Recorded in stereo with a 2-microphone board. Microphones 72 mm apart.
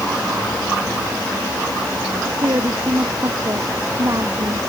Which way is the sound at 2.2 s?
45° right (ahead or behind).